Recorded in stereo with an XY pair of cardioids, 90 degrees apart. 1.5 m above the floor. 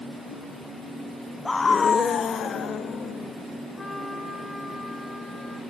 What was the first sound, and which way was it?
A scream, 20° left.